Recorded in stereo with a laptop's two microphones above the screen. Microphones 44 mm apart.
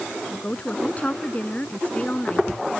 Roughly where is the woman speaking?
Left.